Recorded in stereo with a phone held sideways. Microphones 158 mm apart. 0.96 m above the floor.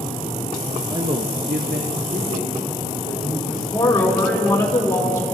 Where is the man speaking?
20° right (ahead or behind), 0.6 m; by 3.6 s 70° right (ahead or behind), 3.5 m.